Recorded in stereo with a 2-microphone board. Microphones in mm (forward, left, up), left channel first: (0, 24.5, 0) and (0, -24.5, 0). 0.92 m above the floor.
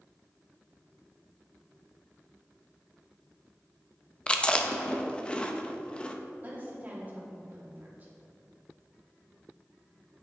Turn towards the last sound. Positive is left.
turn(degrees=-35)  # may be behind; listen again after turning